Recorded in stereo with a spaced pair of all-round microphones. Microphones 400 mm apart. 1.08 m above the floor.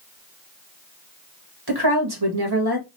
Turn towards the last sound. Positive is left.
turn(degrees=-60)  # may be behind; listen again after turning